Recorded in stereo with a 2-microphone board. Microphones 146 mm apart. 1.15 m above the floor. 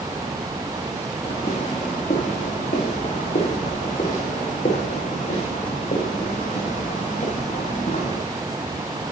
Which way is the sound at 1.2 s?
80° left.